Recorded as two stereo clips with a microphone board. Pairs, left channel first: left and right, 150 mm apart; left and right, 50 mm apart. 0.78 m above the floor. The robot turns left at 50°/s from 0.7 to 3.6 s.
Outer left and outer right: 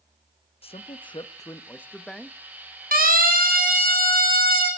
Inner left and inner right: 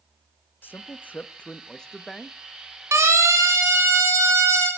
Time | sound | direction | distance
0.6 | a man speaking | 75° left | 0.7 m
2.9 | a siren | 75° right (ahead or behind) | 4.5 m